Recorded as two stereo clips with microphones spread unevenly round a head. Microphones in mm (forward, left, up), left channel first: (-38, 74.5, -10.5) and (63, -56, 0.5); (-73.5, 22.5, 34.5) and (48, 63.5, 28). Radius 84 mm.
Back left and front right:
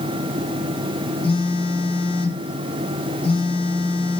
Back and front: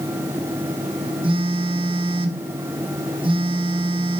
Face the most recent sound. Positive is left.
turn(degrees=70)